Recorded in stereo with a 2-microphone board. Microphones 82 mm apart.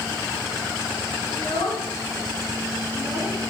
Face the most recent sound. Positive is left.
turn(degrees=80)